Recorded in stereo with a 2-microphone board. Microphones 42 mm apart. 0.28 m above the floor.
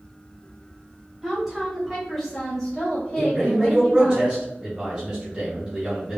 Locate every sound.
1.2 s a woman speaking: 5° right (ahead or behind), 1.4 m; by 4.2 s 25° left (ahead or behind), 1.7 m
3.2 s a man speaking: 15° right (ahead or behind), 1.2 m